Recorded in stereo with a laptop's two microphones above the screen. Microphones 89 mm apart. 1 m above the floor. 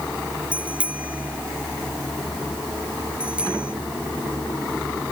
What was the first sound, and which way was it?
A bicycle bell, 15° right (ahead or behind).